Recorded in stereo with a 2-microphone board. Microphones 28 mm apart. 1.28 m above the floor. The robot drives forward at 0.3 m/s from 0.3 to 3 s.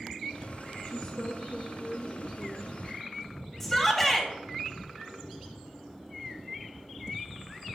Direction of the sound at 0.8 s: 55° left (ahead or behind).